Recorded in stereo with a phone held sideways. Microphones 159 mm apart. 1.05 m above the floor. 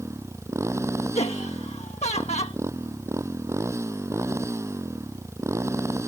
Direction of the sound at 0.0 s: 15° right (ahead or behind).